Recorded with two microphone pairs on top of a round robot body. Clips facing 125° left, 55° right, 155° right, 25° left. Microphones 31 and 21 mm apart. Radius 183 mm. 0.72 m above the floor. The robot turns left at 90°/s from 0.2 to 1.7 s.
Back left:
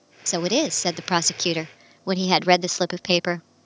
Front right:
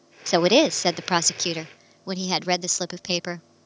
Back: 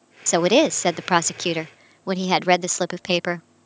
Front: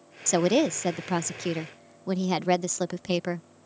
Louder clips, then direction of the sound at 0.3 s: Front right 5 dB, back 6 dB; 65° right.